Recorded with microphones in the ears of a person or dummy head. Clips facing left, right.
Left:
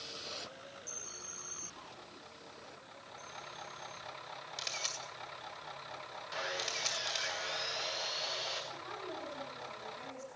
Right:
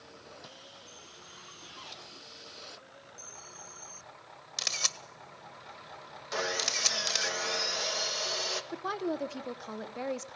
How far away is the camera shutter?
About 1.5 m.